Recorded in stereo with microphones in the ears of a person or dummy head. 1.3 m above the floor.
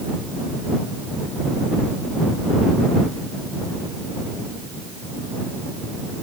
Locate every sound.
Only background noise.